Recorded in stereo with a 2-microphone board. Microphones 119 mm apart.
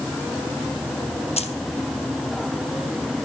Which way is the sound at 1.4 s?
60° left (ahead or behind).